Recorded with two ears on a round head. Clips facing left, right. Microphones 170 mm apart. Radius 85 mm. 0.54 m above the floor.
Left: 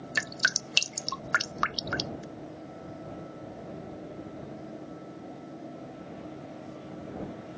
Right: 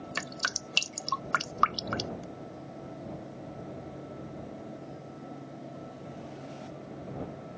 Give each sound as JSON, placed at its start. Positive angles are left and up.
{"t": 0.1, "sound": "dripping", "side_deg": 20}